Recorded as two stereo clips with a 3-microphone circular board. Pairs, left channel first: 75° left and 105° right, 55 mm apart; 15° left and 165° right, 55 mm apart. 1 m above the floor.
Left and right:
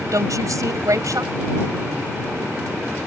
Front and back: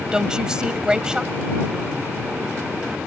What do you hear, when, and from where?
0.1 s a woman speaking: 90° right